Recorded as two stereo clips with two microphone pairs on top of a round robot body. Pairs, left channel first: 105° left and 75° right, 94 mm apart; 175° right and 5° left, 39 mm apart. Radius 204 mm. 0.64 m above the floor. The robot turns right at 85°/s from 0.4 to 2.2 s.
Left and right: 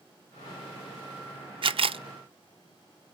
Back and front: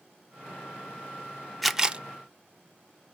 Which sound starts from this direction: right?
A camera shutter, at 1.6 s.